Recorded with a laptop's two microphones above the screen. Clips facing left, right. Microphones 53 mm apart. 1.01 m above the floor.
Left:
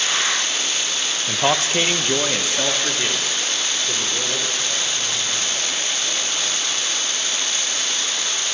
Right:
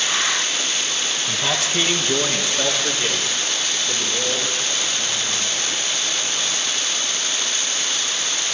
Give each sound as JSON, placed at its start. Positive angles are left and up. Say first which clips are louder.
{"t": 1.3, "sound": "a man speaking", "louder": "left 5 dB", "side_deg": 45, "distance_m": 0.7}